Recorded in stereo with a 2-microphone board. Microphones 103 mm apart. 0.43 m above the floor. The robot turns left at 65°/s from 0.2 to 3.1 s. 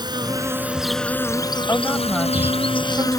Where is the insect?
135° right; by 3.2 s 35° left.